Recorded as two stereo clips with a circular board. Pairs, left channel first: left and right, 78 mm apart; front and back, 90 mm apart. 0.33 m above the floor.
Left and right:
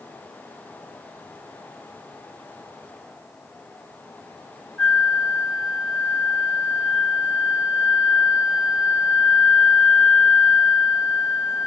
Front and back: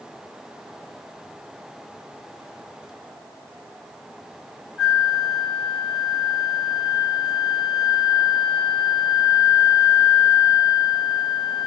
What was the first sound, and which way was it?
A flute, 115° left.